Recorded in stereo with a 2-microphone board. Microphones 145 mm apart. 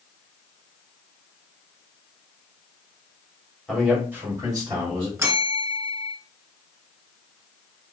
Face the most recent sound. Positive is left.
turn(degrees=-15)  # may be behind; listen again after turning